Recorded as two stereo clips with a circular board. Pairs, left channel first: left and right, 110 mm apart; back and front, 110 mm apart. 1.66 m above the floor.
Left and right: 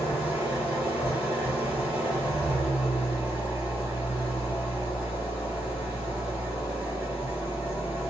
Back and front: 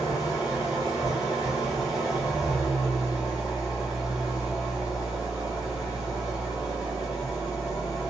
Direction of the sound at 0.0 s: 160° right.